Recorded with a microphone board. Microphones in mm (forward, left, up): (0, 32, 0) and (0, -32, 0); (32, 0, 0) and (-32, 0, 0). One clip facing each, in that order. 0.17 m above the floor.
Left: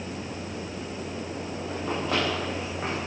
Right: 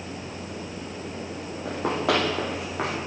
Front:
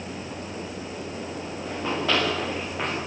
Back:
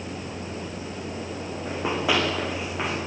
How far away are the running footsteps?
About 8.5 m.